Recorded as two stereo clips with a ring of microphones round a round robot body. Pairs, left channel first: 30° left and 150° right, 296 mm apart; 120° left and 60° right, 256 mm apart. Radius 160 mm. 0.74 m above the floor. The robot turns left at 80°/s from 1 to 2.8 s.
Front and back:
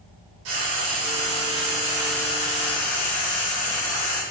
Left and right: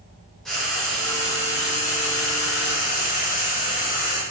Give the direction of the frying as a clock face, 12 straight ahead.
5 o'clock.